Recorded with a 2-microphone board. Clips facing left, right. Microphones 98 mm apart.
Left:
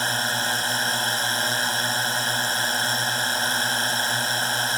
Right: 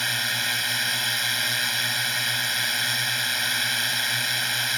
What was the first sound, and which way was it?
A drone, 35° left (ahead or behind).